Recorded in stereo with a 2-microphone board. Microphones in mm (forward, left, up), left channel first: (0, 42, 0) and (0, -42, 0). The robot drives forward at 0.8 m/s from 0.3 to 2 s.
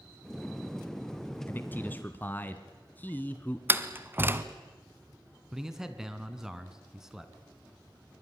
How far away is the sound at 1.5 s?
About 1.1 m.